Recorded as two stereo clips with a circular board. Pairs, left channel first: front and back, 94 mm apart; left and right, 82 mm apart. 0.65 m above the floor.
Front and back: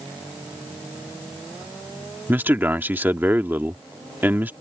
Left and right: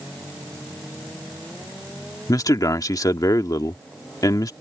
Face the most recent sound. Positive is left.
turn(degrees=115)